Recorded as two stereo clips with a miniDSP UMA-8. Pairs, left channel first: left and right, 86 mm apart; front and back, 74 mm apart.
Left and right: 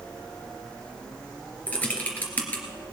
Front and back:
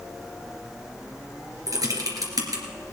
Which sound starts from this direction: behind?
Typing on a keyboard, at 1.7 s.